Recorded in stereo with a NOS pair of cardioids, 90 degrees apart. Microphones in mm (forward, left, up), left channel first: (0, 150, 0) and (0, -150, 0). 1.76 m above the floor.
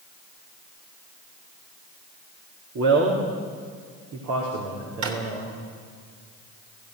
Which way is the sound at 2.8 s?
65° right.